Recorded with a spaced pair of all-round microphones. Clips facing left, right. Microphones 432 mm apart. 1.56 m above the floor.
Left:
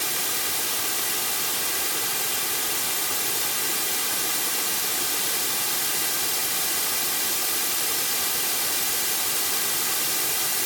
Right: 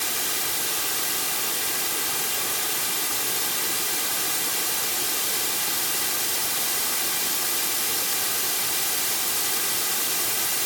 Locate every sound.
Only background noise.